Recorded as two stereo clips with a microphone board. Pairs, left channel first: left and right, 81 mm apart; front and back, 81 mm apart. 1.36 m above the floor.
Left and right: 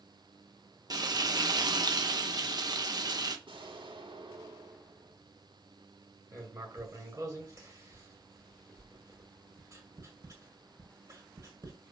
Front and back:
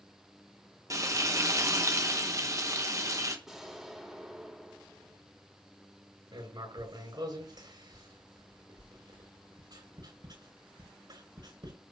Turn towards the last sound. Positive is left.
turn(degrees=-145)